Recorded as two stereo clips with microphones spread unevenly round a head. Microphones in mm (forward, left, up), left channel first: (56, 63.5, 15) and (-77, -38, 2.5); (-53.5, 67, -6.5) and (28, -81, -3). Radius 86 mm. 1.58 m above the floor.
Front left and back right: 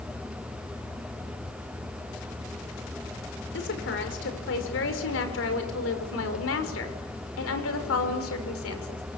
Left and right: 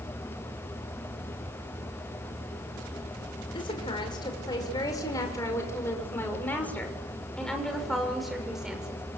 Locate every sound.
3.5 s a woman speaking: 55° left, 6 m; by 9.0 s 25° left, 6 m